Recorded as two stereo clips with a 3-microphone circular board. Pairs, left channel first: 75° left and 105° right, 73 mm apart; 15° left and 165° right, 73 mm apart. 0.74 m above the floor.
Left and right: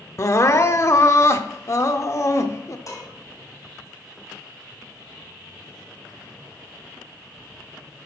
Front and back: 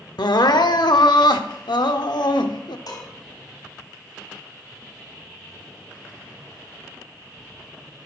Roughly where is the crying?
Ahead left.